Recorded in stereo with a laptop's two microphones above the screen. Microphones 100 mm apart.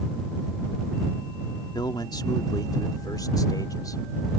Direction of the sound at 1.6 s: 45° left (ahead or behind).